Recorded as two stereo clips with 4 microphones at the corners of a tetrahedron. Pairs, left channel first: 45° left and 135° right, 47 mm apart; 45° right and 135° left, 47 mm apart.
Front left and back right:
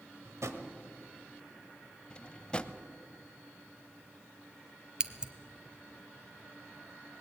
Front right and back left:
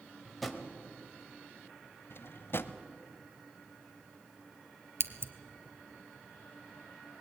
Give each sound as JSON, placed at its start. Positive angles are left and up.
{"t": 0.2, "sound": "a drawer", "azimuth_deg": -135, "distance_m": 1.5}
{"t": 2.1, "sound": "a drawer", "azimuth_deg": -20, "distance_m": 0.7}
{"t": 5.0, "sound": "scissors", "azimuth_deg": 150, "distance_m": 0.9}